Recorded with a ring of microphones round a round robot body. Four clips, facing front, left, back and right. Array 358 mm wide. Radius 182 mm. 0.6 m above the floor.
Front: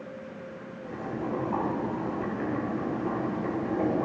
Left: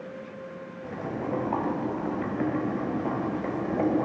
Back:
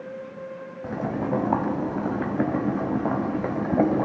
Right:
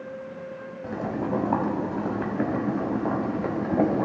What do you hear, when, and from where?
0.8 s boiling: 165° right, 1.2 m